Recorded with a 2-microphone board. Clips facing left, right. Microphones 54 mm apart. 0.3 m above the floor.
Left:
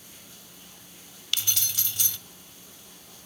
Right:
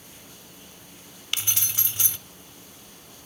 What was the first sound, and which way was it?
Keys jangling, 25° right (ahead or behind).